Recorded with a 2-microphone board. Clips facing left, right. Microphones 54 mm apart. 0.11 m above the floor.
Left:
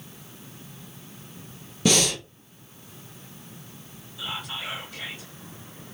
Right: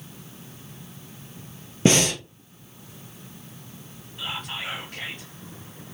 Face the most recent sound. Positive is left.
turn(degrees=-55)  # may be behind; listen again after turning